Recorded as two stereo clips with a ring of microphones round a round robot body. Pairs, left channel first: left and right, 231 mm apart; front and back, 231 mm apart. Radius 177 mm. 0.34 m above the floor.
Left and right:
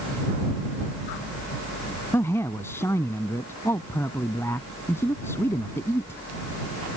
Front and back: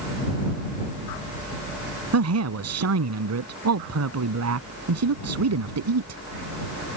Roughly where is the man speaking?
Behind.